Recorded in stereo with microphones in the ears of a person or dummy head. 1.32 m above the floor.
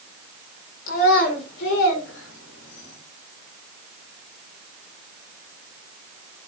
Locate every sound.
0.9 s a child speaking: 50° left (ahead or behind), 2.5 m; by 3.0 s 75° left (ahead or behind), 2.5 m